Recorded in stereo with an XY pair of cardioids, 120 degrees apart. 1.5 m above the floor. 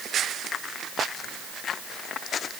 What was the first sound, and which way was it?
Only background noise.